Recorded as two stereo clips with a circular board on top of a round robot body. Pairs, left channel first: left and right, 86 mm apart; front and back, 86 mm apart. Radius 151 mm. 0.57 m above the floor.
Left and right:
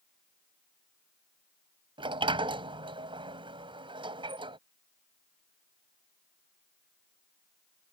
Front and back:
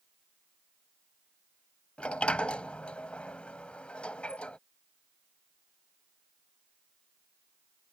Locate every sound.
2.0 s a sliding door: 75° right